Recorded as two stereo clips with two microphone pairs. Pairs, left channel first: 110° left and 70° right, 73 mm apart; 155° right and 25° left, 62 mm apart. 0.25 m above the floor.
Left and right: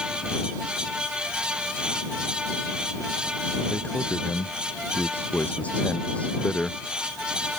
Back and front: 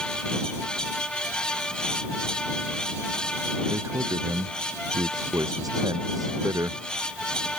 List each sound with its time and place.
3.7 s a man speaking: 45° left; by 6.8 s 35° left